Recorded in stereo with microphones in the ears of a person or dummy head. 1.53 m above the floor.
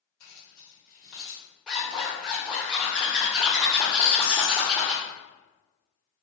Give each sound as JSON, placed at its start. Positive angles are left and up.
{"t": 0.2, "sound": "keys jangling", "side_deg": 45, "distance_m": 0.9}
{"t": 1.7, "sound": "a zipper", "side_deg": 5, "distance_m": 0.7}
{"t": 4.0, "sound": "a squeak", "side_deg": -25, "distance_m": 1.2}